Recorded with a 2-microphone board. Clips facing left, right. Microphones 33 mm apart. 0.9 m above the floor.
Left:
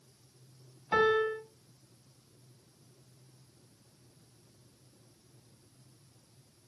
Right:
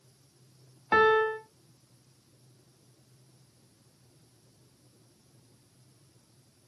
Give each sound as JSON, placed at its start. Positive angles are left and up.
{"t": 0.9, "sound": "a piano", "side_deg": -35, "distance_m": 1.3}